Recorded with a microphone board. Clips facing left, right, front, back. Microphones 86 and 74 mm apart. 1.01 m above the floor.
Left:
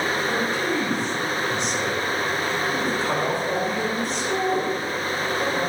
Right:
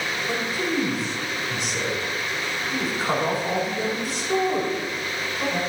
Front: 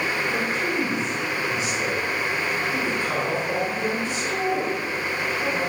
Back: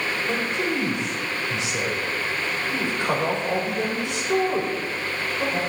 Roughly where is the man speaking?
Behind.